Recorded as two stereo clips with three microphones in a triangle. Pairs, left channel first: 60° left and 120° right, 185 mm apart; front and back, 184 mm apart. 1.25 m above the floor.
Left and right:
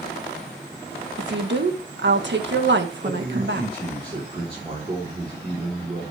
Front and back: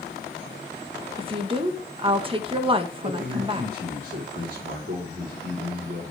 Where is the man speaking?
175° right, 4 m.